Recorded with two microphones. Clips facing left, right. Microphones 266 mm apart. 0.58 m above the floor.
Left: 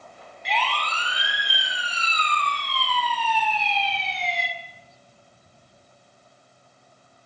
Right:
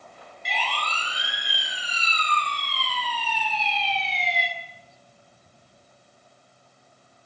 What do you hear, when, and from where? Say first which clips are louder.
0.5 s a siren: left 4 dB; 70° left (ahead or behind), 6.5 m; by 4.5 s 55° left (ahead or behind), 7.5 m